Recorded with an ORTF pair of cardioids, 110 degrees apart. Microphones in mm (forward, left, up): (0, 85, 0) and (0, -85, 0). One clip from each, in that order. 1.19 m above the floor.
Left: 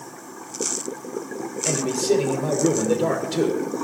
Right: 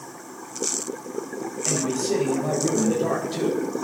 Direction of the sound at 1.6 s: 55° left.